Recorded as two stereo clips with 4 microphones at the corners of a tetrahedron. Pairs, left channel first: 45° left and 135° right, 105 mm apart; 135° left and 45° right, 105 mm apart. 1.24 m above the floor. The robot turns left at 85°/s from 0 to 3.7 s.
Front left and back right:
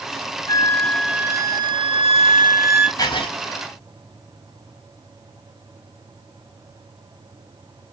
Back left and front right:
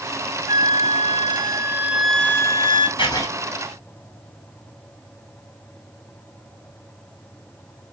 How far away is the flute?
About 0.8 m.